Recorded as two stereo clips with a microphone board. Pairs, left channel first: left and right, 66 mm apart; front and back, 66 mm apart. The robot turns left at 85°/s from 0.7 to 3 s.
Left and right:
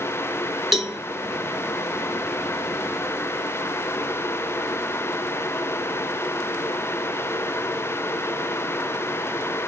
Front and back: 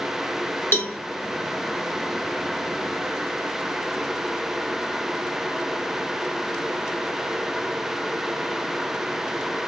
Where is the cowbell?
5° right, 0.9 m; by 1.0 s 30° right, 0.9 m.